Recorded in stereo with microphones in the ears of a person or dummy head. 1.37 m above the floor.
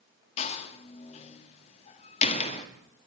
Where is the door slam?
45° left (ahead or behind), 1.9 m.